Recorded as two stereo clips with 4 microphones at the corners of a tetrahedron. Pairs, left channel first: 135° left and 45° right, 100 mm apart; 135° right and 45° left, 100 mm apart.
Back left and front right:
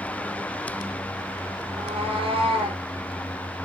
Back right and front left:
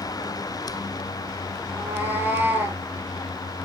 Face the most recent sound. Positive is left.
turn(degrees=-25)